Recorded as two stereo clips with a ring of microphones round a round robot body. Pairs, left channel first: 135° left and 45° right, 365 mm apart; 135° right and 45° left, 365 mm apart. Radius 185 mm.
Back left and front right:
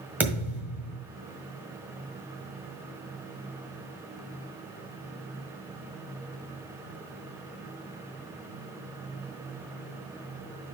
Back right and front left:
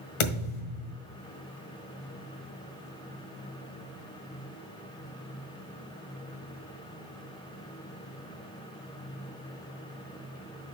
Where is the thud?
130° right, 1.6 m.